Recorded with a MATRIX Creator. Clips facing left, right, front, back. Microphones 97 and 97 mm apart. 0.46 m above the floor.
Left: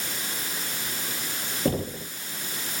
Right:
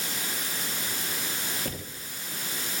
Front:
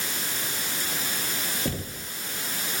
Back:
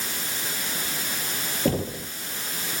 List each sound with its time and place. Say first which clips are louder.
1.6 s knocking: left 11 dB, back 7 dB; 140° left